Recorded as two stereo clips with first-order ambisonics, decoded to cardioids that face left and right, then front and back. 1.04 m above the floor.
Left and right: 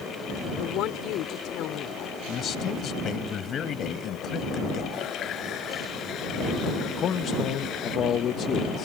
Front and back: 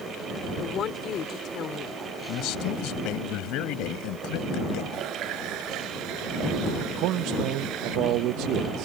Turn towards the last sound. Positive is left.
turn(degrees=145)